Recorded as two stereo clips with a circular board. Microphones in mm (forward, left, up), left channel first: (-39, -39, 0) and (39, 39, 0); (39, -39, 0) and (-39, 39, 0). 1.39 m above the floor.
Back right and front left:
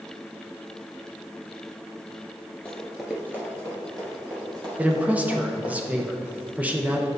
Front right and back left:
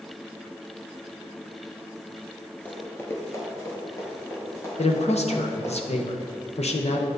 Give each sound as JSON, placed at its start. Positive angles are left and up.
{"t": 2.6, "sound": "running footsteps", "azimuth_deg": -85, "distance_m": 1.4}
{"t": 4.8, "sound": "a man speaking", "azimuth_deg": -30, "distance_m": 0.8}